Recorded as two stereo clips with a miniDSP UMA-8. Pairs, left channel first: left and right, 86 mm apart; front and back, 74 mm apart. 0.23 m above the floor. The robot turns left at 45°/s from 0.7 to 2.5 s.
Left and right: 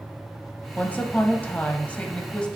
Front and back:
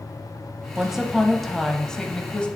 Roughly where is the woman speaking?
Behind left.